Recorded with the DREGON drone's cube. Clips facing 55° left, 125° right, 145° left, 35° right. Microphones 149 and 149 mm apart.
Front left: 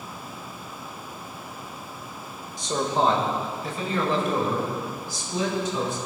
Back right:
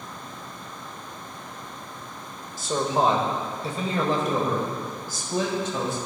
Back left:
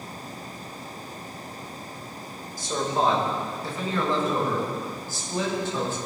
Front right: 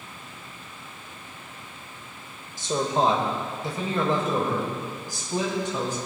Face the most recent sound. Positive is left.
turn(degrees=-105)